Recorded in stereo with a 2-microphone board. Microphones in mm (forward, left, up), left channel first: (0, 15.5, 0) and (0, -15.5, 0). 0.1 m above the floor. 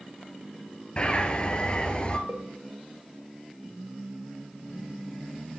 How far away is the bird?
About 1.3 m.